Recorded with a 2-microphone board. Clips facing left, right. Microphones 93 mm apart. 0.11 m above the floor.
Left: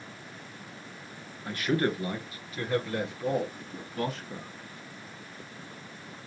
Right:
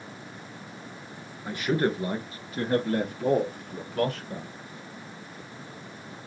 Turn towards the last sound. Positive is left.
turn(degrees=-60)  # may be behind; listen again after turning